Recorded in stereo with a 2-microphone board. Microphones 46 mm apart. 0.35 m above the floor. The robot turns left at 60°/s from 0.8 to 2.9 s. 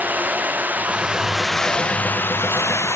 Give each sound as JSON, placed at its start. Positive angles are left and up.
{"t": 0.0, "sound": "running water", "azimuth_deg": -145}